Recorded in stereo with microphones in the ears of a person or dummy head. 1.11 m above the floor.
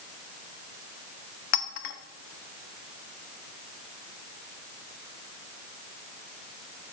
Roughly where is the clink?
Left.